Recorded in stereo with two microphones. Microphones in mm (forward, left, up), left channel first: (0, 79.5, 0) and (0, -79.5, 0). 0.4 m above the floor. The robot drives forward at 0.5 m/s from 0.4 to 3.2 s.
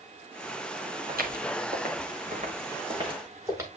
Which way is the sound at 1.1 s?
85° right.